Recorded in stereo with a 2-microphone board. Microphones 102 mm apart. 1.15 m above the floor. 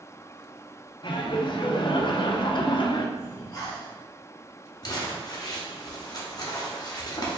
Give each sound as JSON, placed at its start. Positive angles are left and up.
{"t": 1.0, "sound": "laughter", "side_deg": 50, "distance_m": 0.6}
{"t": 3.2, "sound": "breathing", "side_deg": 40, "distance_m": 1.0}
{"t": 4.8, "sound": "crumpling", "side_deg": 40, "distance_m": 0.8}